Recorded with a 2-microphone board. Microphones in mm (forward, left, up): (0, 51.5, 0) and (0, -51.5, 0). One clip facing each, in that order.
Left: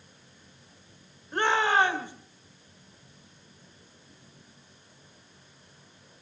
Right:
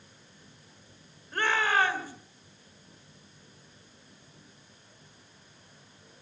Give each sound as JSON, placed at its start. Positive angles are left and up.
{"t": 1.3, "sound": "a shout", "side_deg": 20, "distance_m": 2.0}